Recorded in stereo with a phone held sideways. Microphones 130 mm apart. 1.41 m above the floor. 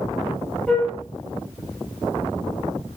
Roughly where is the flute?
Centre.